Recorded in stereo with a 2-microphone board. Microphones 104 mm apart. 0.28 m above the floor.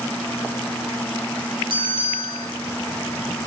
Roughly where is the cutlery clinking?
No cutlery clinking in this recording.